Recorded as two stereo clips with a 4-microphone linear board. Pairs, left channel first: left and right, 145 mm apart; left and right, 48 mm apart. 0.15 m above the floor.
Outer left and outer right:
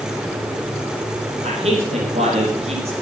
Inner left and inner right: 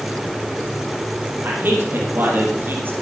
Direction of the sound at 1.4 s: 50° right (ahead or behind).